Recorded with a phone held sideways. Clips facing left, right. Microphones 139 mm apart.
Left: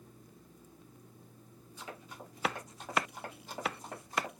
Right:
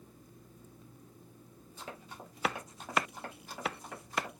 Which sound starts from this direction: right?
Running footsteps, at 1.8 s.